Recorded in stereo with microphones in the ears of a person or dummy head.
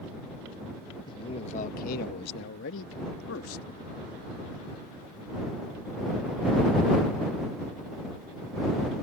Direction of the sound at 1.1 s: 25° left (ahead or behind).